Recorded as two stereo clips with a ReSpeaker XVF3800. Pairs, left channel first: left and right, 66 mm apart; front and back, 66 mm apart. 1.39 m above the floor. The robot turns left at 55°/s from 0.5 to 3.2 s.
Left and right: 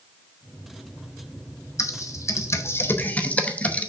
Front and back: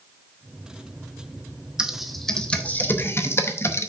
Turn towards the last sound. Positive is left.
turn(degrees=30)